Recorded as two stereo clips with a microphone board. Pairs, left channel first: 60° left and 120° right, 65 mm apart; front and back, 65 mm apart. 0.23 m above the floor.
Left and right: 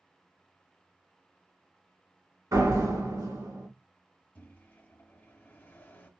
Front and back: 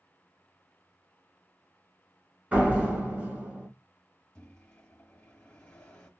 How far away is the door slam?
About 2 m.